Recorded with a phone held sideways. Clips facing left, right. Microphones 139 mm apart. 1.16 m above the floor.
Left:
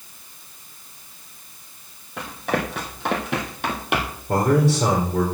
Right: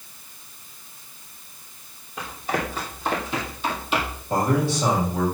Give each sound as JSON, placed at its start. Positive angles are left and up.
{"t": 2.2, "sound": "running footsteps", "side_deg": 75, "distance_m": 3.5}
{"t": 4.3, "sound": "a man speaking", "side_deg": 75, "distance_m": 4.0}